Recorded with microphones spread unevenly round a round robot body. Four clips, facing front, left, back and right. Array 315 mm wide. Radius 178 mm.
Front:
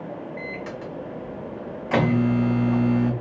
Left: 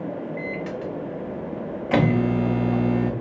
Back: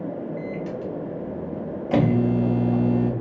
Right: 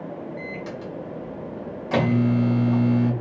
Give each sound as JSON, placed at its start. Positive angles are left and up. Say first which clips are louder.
{"t": 0.4, "sound": "a microwave", "louder": "left 4 dB, back 3 dB", "azimuth_deg": 120, "distance_m": 0.6}